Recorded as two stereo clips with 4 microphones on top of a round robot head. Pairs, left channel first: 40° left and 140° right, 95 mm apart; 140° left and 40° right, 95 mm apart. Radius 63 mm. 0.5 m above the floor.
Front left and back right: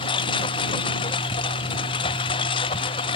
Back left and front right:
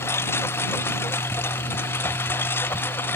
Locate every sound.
0.0 s a lawn mower: 75° left; by 3.2 s 70° left